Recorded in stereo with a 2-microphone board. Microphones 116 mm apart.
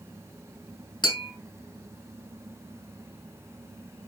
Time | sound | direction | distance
1.0 | tapping | 40° left (ahead or behind) | 3 m